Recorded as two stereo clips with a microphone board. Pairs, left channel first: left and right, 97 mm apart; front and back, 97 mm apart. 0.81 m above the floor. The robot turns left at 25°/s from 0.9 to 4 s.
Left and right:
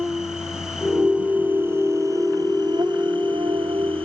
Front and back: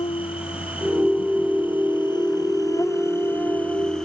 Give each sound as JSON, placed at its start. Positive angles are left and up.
{"t": 0.0, "sound": "an insect", "azimuth_deg": -5}